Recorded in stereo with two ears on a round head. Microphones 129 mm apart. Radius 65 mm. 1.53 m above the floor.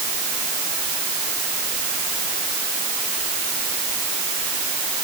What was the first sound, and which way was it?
Only background noise.